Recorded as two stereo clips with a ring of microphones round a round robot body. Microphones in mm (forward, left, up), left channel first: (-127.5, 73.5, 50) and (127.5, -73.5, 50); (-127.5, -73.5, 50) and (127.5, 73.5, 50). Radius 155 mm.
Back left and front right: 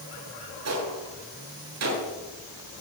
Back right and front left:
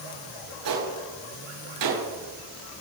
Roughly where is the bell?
I don't hear a bell.